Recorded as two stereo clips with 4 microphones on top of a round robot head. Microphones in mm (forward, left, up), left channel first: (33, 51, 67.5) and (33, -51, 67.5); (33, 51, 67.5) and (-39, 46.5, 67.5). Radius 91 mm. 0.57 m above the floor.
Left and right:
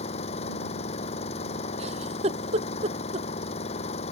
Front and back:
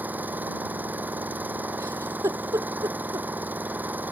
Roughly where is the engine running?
Behind left.